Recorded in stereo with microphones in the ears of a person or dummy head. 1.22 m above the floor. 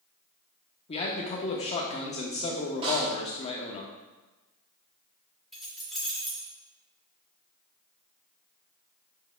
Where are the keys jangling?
Centre (ahead or behind), 2.5 m.